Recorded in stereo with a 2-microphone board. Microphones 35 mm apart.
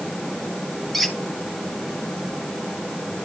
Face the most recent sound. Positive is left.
turn(degrees=0)  # may be behind; listen again after turning